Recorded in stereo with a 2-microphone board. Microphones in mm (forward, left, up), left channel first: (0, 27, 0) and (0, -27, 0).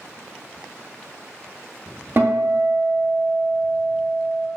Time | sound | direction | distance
2.2 | a guitar | 40° right (ahead or behind) | 0.8 m